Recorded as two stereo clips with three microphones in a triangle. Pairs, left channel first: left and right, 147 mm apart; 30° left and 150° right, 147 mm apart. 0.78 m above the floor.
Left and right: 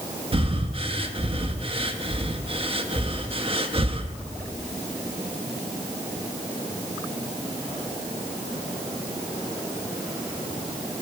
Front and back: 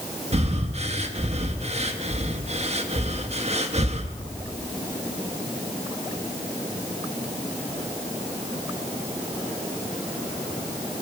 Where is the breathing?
130° right, 0.7 m.